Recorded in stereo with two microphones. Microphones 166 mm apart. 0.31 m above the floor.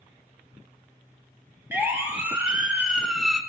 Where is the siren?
15° right (ahead or behind), 3 m; by 3.4 s centre (ahead or behind), 2.5 m.